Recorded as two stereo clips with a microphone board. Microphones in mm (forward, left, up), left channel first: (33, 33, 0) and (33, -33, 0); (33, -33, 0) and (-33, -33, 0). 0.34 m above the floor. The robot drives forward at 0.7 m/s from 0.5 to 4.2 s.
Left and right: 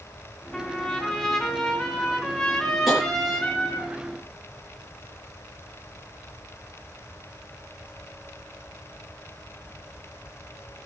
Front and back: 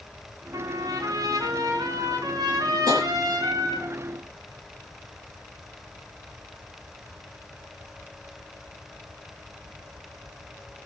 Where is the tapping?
175° right, 7.5 m.